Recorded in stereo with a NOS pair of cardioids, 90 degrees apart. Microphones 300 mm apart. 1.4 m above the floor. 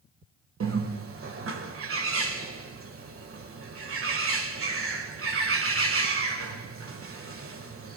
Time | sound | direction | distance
0.6 | a bird | 45° right | 1.6 m